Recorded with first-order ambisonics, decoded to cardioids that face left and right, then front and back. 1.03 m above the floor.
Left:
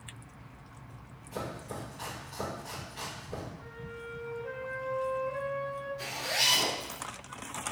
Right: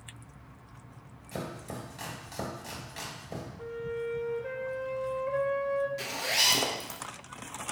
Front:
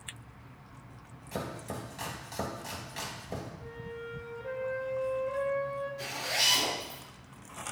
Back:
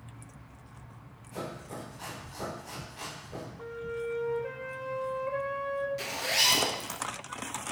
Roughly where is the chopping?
Ahead right.